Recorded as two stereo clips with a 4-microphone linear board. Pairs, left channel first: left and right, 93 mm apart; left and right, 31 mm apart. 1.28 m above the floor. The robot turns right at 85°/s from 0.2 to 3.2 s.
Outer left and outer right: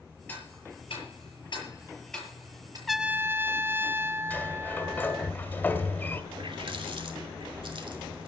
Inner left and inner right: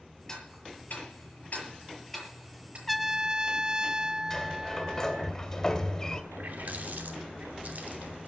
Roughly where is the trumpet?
Centre.